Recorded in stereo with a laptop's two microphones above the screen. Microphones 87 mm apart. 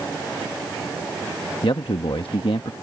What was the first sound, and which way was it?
A man speaking, 75° left (ahead or behind).